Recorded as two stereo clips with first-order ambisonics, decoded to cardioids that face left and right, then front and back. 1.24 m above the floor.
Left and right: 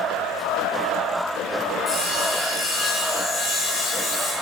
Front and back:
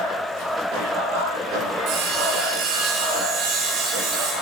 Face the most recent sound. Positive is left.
turn(degrees=160)